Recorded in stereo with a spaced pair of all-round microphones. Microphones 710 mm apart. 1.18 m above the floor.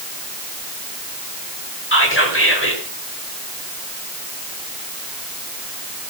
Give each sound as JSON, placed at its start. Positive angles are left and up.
{"t": 1.9, "sound": "whispering", "side_deg": 15, "distance_m": 5.5}